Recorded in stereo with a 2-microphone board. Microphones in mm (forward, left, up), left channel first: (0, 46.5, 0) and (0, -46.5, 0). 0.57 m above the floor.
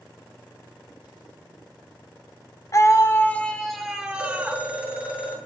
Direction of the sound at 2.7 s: 40° left (ahead or behind).